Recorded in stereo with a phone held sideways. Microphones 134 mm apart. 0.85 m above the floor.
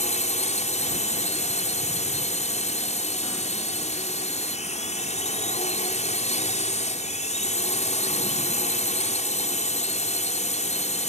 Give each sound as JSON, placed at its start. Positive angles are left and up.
{"t": 0.0, "sound": "a drone", "side_deg": 55}